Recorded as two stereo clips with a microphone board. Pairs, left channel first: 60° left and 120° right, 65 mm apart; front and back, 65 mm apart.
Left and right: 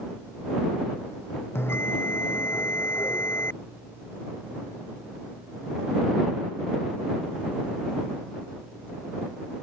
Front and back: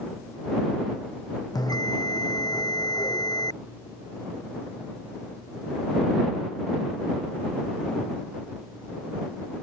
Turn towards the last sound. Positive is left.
turn(degrees=10)